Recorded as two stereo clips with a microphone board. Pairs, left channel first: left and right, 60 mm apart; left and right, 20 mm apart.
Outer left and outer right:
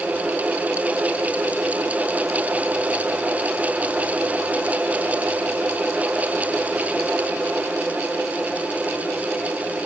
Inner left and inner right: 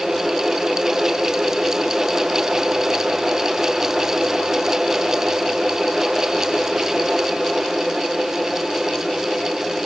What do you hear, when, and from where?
Only background noise.